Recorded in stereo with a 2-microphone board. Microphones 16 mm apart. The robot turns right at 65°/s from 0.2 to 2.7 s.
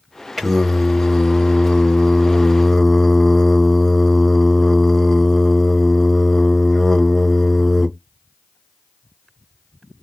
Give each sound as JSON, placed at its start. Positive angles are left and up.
{"t": 0.4, "sound": "singing", "azimuth_deg": -5, "distance_m": 0.9}